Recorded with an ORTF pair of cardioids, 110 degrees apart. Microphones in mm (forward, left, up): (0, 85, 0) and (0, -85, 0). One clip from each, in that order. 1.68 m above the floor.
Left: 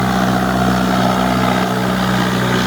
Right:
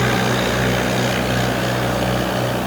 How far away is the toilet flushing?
No toilet flushing in this recording.